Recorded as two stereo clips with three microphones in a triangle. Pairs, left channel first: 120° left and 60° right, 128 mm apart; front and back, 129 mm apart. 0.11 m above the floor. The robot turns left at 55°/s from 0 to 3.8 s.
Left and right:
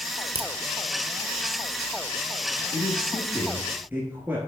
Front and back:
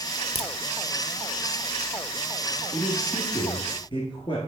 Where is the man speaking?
65° left, 1.5 m; by 4.4 s 10° left, 1.5 m.